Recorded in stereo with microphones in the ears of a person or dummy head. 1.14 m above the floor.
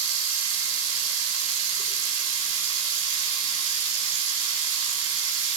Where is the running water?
75° right (ahead or behind), 4 m.